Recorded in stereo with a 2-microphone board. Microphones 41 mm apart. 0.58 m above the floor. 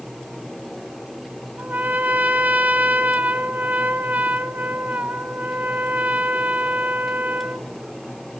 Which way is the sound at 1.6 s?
40° right (ahead or behind).